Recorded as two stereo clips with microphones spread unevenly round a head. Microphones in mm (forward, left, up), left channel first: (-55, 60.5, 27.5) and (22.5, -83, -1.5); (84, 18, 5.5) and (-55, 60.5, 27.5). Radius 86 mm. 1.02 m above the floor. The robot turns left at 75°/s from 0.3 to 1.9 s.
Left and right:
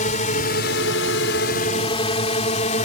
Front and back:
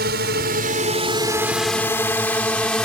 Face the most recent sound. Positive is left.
turn(degrees=70)